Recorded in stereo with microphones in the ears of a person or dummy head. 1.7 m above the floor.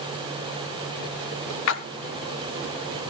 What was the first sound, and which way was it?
A splash, 70° left (ahead or behind).